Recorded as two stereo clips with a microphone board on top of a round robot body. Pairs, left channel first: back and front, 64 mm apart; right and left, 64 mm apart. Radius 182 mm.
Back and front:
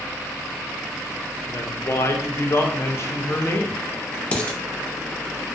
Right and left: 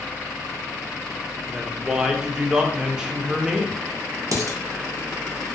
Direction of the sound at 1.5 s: 165° left.